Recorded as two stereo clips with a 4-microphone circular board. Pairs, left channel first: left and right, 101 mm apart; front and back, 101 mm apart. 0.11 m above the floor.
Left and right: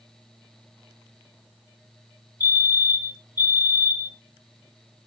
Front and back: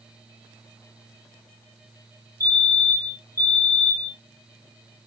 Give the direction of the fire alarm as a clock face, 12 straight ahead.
10 o'clock.